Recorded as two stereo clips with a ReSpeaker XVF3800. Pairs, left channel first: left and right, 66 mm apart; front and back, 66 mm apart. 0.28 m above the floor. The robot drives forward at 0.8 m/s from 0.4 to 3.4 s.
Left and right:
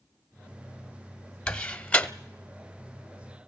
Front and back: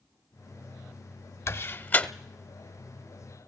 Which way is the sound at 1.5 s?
20° left.